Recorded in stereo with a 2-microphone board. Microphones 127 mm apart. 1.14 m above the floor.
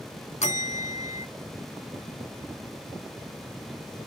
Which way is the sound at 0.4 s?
65° left (ahead or behind).